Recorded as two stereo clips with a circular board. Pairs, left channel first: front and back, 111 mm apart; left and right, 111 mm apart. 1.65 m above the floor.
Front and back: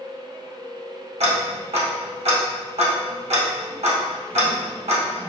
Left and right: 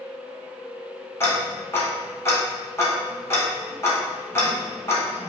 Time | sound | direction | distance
1.2 | ticking | 155° left | 0.8 m